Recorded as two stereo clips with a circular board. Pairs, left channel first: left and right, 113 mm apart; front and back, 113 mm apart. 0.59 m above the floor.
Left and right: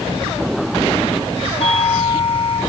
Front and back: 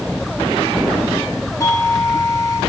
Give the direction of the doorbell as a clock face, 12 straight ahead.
10 o'clock.